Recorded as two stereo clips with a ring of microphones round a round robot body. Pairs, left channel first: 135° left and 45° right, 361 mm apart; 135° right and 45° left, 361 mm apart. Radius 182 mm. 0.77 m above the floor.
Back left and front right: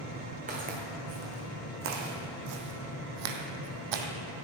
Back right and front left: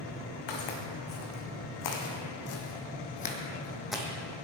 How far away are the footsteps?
About 3 m.